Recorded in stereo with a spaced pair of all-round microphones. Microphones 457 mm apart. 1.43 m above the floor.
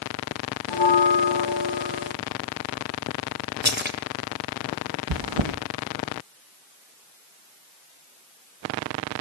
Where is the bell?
65° left (ahead or behind), 1.6 m.